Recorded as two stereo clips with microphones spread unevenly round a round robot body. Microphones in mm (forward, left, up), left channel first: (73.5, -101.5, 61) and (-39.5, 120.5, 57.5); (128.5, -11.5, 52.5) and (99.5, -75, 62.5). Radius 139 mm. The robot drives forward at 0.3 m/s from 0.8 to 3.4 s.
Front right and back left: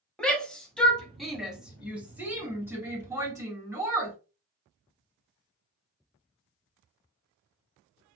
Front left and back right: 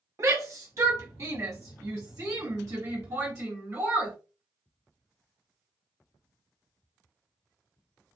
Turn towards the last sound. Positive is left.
turn(degrees=-165)